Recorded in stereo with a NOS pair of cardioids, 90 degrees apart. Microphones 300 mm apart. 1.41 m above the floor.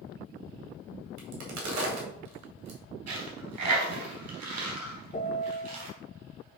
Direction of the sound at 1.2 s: 60° right.